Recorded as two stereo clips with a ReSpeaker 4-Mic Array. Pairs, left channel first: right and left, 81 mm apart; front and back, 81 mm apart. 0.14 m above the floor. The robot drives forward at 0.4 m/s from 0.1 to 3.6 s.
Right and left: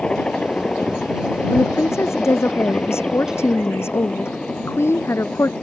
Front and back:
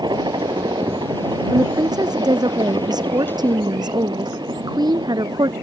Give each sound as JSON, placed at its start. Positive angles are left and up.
{"t": 0.0, "sound": "a helicopter", "azimuth_deg": -165}
{"t": 1.5, "sound": "a woman speaking", "azimuth_deg": -145}